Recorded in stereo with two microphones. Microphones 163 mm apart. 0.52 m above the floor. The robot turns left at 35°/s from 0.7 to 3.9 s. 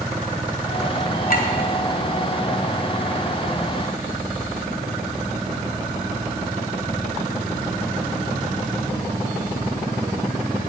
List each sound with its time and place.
1.3 s a clink: 65° left (ahead or behind), 1.4 m; by 1.5 s 70° left (ahead or behind), 1.4 m